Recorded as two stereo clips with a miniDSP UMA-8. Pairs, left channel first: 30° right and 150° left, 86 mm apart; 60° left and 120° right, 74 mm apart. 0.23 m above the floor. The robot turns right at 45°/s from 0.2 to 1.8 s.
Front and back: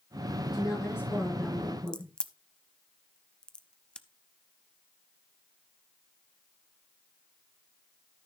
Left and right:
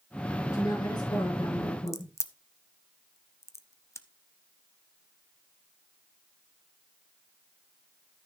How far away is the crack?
About 0.8 m.